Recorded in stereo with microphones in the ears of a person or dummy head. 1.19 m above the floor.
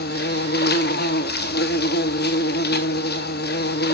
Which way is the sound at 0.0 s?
50° left (ahead or behind).